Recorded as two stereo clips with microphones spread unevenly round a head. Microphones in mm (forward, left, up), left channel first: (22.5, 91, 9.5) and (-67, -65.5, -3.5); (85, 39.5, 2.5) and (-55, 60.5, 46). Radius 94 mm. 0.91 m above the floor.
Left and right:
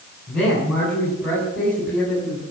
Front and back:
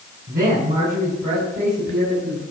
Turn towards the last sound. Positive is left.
turn(degrees=150)